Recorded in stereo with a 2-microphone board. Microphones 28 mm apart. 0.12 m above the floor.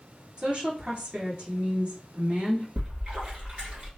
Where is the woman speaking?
35° right (ahead or behind), 1.9 m.